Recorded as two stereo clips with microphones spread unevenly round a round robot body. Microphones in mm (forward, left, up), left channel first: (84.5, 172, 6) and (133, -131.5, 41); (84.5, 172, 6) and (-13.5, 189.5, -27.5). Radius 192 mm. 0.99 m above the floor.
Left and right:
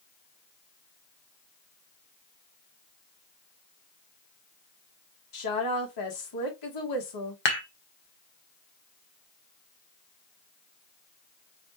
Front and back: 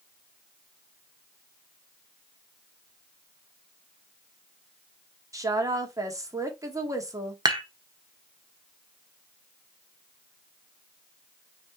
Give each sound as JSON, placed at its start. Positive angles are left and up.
{"t": 5.3, "sound": "a woman speaking", "azimuth_deg": 110, "distance_m": 1.8}
{"t": 7.5, "sound": "dishes clattering", "azimuth_deg": 115, "distance_m": 1.5}